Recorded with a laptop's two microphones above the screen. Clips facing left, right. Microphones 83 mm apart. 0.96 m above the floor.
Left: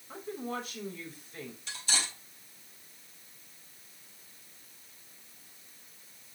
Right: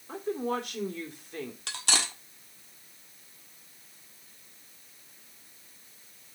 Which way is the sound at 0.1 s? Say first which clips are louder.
Right 7 dB; 75° right (ahead or behind).